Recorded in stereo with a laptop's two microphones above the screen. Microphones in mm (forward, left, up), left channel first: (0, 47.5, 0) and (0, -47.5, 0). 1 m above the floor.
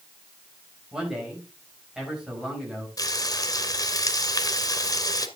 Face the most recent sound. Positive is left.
turn(degrees=45)  # may be behind; listen again after turning